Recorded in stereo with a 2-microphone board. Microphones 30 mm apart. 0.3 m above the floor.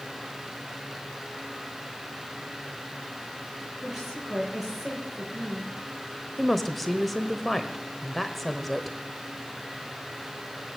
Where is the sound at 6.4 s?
5° left (ahead or behind), 0.9 m.